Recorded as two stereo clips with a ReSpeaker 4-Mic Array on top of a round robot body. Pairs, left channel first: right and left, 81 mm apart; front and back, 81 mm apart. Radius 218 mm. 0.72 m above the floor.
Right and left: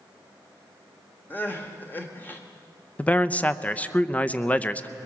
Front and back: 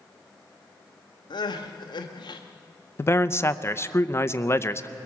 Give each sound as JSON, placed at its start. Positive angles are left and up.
{"t": 1.3, "sound": "crying", "azimuth_deg": -25, "distance_m": 1.1}
{"t": 3.0, "sound": "a man speaking", "azimuth_deg": -30, "distance_m": 0.9}